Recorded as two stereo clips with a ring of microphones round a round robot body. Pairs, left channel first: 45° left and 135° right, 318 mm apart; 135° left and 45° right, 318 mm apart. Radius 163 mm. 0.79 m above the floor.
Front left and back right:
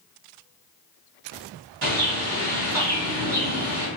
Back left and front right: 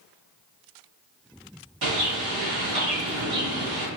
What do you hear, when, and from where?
1.8 s a bird: 85° right, 1.2 m